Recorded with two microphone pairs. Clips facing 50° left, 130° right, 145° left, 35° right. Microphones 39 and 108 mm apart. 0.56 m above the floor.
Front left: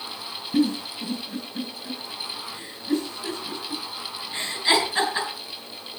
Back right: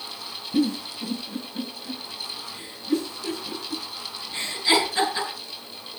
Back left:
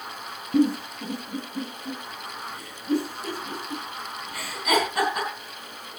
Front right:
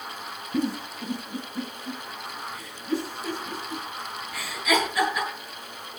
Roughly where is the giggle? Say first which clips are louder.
Front left 1 dB, back left 6 dB; behind left.